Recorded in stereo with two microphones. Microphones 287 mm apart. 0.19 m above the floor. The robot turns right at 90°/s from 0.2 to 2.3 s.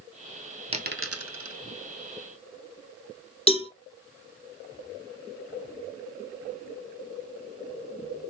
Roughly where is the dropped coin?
Right.